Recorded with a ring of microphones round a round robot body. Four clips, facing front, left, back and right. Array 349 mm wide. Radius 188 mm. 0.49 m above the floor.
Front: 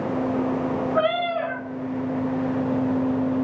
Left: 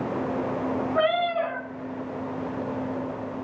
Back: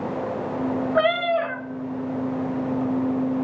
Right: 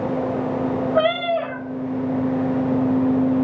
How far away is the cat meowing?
About 0.9 m.